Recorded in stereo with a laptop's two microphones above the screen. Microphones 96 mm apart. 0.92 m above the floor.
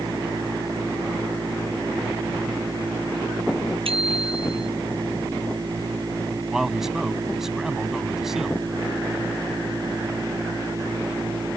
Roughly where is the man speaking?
Centre.